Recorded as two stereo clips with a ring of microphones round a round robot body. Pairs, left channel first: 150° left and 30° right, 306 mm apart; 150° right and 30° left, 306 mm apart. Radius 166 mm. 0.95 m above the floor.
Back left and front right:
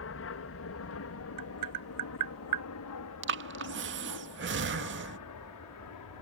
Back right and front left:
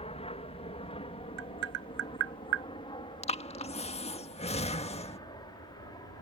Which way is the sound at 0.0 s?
150° left.